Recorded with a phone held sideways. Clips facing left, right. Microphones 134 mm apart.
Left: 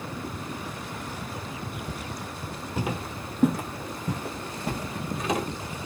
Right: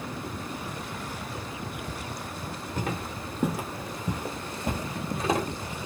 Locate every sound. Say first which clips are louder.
2.8 s footsteps: left 2 dB; 10° left (ahead or behind), 1.3 m; by 5.5 s 30° right (ahead or behind), 1.5 m